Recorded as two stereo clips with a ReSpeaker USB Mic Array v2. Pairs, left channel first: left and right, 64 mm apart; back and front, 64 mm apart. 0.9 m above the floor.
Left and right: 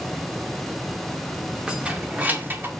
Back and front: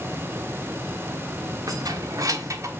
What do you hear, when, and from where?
1.7 s keys jangling: 15° right, 1.7 m; by 2.7 s 35° right, 1.6 m